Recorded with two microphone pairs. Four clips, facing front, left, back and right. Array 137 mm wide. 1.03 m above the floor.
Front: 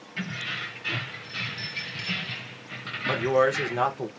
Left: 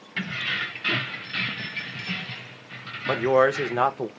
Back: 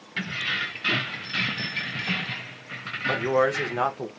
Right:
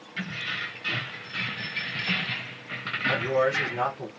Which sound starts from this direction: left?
A man speaking, at 3.1 s.